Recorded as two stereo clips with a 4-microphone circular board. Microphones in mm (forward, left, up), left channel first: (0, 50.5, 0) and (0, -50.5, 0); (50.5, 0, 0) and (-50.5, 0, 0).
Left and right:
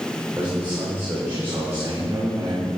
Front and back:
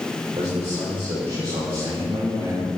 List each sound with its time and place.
0.3 s a man speaking: 160° right, 4.5 m; by 2.7 s 145° right, 3.5 m